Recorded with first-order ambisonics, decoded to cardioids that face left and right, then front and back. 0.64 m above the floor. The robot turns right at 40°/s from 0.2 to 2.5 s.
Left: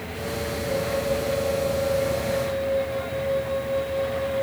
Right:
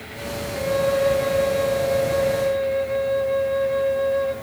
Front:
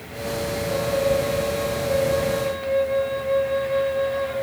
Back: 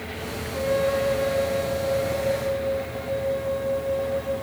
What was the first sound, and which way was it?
A flute, 140° right.